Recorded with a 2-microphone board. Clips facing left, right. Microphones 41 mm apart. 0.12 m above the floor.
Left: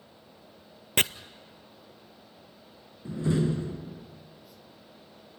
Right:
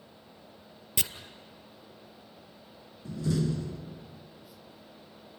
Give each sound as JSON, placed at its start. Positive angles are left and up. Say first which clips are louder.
{"t": 1.0, "sound": "chopping", "louder": "left 9 dB", "side_deg": 55, "distance_m": 0.7}
{"t": 3.0, "sound": "a door slam", "louder": "left 3 dB", "side_deg": 30, "distance_m": 0.9}